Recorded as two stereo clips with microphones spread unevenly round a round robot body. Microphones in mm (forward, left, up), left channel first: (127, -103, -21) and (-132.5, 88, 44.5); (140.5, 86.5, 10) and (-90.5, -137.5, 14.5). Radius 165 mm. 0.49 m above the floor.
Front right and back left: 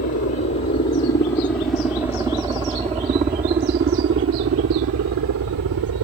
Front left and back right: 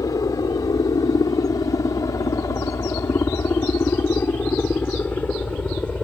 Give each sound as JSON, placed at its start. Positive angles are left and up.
{"t": 0.0, "sound": "a helicopter", "azimuth_deg": -30}